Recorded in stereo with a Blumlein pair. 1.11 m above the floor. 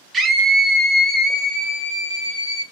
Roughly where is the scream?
Ahead.